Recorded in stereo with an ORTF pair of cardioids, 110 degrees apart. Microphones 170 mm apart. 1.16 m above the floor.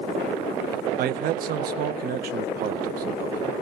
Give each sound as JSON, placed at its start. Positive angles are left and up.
{"t": 1.0, "sound": "a man speaking", "azimuth_deg": -60, "distance_m": 0.6}